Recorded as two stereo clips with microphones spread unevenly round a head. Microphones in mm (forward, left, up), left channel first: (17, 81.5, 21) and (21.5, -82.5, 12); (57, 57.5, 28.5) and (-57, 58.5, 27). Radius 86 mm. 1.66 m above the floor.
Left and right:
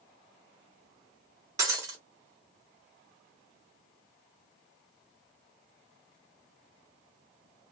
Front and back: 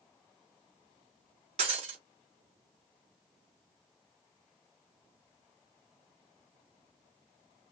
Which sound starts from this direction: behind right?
Breaking glass, at 1.6 s.